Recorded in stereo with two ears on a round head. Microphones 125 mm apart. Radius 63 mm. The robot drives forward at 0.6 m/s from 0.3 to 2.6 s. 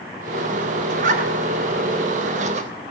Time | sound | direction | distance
0.9 | a zipper | 55° right (ahead or behind) | 1.2 m